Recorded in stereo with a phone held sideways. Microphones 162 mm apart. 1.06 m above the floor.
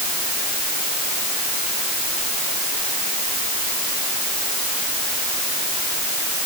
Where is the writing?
No writing in this recording.